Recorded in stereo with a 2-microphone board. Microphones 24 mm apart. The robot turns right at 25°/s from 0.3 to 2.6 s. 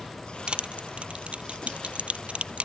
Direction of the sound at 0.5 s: 50° right (ahead or behind).